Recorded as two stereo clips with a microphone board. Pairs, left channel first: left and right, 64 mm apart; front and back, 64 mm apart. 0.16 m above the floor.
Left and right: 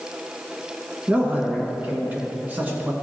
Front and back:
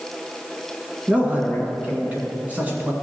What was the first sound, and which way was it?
A man speaking, 135° right.